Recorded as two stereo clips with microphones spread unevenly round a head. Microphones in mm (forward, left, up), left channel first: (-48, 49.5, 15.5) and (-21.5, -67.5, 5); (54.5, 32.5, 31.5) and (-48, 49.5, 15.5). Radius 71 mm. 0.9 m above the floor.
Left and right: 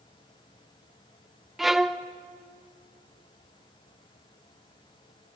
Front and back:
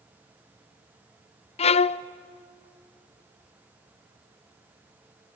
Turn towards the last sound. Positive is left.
turn(degrees=10)